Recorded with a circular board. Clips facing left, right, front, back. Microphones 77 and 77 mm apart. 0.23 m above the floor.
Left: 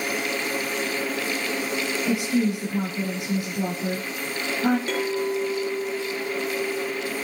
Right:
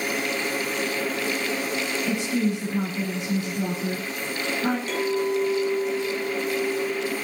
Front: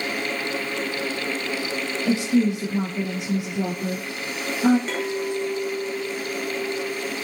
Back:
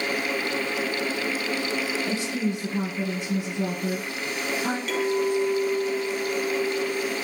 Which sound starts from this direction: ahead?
A woman speaking, at 2.0 s.